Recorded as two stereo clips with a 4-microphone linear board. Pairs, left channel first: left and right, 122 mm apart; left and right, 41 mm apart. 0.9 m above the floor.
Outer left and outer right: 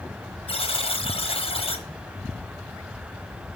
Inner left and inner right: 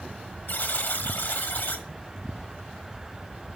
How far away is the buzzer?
About 1.1 m.